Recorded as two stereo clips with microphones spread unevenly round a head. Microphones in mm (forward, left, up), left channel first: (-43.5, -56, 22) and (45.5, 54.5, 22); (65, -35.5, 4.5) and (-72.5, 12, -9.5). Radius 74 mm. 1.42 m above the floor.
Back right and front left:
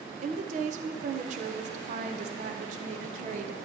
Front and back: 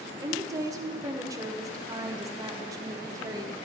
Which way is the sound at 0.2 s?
90° left.